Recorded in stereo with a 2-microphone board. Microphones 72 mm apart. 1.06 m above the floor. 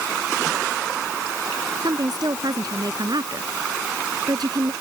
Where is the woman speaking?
65° right (ahead or behind).